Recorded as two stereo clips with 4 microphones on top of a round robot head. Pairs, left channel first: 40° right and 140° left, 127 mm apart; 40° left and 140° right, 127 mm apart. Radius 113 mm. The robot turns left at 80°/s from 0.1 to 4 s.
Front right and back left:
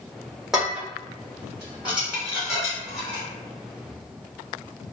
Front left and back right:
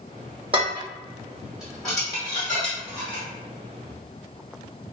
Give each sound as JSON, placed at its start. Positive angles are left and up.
{"t": 0.5, "sound": "dishes clattering", "azimuth_deg": -135, "distance_m": 0.6}